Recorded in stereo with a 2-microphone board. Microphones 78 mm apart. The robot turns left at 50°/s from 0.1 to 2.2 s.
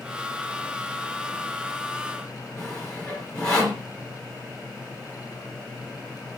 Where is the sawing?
10° left (ahead or behind), 3 m.